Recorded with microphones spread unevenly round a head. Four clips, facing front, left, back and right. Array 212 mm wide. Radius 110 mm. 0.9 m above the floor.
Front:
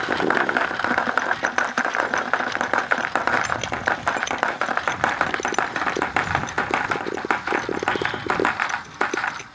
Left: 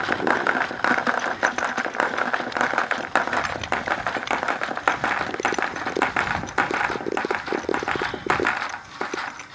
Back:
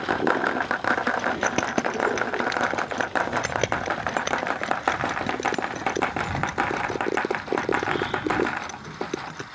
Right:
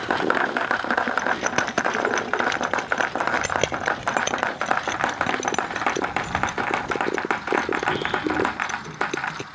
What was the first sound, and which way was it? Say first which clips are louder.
Keys jangling: even, front 1 dB; 155° right.